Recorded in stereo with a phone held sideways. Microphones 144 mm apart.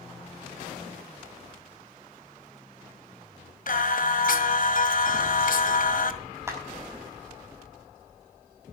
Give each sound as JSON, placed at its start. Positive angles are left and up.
{"t": 3.7, "sound": "singing", "side_deg": 65, "distance_m": 1.6}
{"t": 6.5, "sound": "a clap", "side_deg": -20, "distance_m": 5.0}